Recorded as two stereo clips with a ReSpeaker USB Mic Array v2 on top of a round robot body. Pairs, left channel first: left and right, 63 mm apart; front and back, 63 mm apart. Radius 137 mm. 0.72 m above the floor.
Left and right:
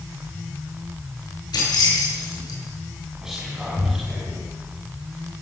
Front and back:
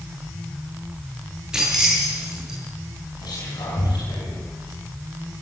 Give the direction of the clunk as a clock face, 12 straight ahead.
No clunk in this recording.